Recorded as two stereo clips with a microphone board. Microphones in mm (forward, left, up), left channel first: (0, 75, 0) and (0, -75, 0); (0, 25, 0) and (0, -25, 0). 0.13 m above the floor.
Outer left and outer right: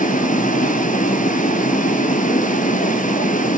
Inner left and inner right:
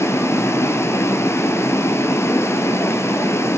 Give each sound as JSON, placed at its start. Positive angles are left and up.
{"t": 0.0, "sound": "running water", "side_deg": 60, "distance_m": 1.1}